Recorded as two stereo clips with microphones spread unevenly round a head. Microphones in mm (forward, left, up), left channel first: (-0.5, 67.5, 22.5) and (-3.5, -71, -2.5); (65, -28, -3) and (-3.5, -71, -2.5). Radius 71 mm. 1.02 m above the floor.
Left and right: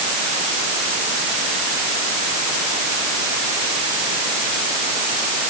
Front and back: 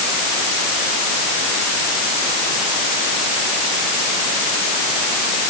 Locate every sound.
Only background noise.